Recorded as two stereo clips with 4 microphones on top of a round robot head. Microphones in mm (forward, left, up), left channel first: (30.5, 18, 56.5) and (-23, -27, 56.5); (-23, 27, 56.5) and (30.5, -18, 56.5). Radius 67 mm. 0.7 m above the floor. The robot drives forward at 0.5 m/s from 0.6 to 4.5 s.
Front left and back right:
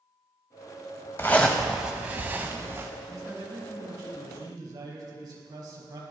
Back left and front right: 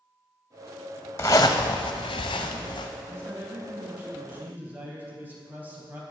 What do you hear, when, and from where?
1.2 s a zipper: 95° left, 0.5 m; by 2.9 s 160° left, 1.0 m
3.1 s a man speaking: 95° right, 3.5 m; by 6.0 s 105° right, 4 m